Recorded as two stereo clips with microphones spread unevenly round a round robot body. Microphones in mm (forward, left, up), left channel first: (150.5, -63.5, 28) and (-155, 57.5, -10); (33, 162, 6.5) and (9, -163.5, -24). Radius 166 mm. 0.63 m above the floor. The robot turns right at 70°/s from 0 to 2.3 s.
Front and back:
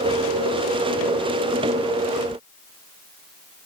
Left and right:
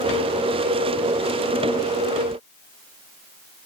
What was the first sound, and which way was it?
Only background noise.